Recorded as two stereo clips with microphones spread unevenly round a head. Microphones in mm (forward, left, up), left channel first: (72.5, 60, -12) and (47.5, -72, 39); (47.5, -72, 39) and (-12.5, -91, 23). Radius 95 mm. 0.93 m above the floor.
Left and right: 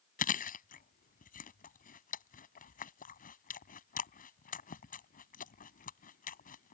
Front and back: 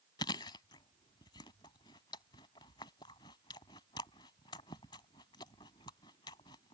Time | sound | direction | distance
0.2 | chewing | 50° left | ?